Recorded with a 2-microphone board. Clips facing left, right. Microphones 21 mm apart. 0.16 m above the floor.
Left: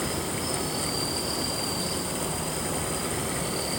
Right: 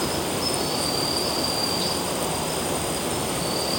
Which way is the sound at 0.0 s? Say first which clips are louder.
Right 5 dB; 50° right (ahead or behind).